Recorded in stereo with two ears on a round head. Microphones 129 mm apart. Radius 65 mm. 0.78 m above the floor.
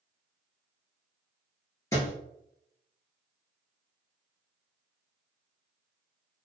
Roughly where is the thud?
Left.